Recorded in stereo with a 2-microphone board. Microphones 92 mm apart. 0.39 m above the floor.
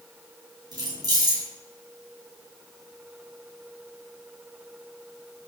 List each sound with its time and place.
0.7 s keys jangling: 50° right (ahead or behind), 2 m